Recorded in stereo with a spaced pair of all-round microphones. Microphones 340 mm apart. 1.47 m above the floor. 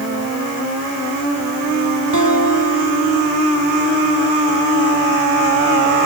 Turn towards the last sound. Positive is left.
turn(degrees=-60)  # may be behind; listen again after turning